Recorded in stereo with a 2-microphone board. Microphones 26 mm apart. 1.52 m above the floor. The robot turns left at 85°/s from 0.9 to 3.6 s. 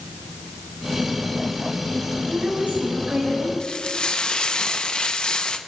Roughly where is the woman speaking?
Ahead right.